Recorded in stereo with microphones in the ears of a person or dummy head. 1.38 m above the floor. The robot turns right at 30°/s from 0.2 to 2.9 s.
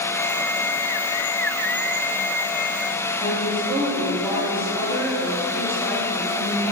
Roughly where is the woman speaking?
Centre.